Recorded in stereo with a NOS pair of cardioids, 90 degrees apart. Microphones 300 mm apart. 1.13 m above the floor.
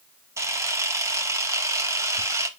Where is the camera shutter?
10° right, 0.5 m.